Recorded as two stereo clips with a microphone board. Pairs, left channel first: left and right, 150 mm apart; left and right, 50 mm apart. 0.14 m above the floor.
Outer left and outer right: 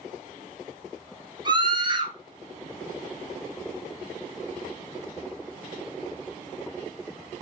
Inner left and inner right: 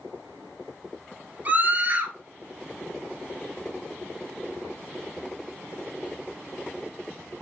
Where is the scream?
35° right (ahead or behind), 2.0 m.